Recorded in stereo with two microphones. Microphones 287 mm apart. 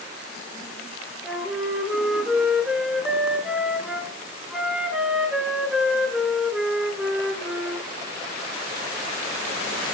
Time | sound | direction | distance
1.2 | a flute | centre (ahead or behind) | 2.5 m